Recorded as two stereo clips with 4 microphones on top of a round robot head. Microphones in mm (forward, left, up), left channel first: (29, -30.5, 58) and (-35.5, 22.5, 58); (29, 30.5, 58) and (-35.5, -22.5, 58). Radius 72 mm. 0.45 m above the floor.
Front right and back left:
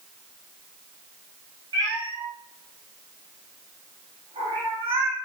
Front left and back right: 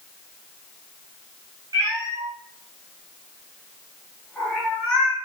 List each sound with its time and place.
1.7 s a cat meowing: straight behind, 1.6 m; by 5.2 s 115° left, 1.7 m